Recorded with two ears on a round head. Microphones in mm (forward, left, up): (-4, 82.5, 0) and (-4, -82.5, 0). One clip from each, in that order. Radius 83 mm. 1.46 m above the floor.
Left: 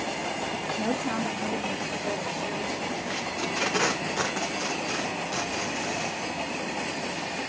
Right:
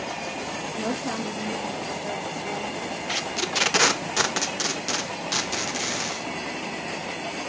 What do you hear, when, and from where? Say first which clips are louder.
0.8 s a woman speaking: right 1 dB; 15° right (ahead or behind), 2.5 m
3.1 s tape being pulled: right 7 dB; 80° right, 1.0 m